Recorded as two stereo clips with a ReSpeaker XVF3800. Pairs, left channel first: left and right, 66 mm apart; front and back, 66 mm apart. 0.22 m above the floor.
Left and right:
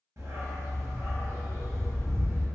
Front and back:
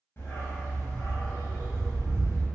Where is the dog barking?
55° right, 1.2 m.